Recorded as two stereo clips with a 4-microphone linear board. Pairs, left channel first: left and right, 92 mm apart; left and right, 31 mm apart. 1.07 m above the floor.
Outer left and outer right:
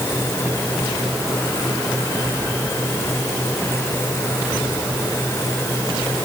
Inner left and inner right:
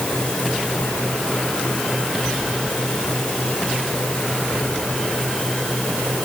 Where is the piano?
I don't hear a piano.